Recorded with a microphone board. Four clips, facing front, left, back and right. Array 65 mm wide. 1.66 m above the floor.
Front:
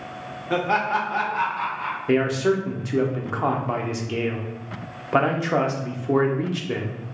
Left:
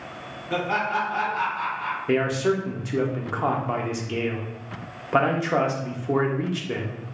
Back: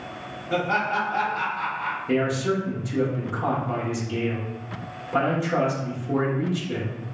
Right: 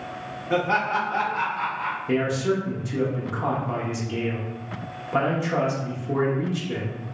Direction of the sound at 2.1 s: 35° left.